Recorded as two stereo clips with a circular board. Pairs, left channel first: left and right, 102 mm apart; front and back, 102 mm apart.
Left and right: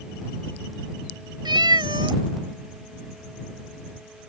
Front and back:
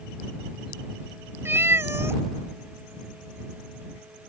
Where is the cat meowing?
120° right.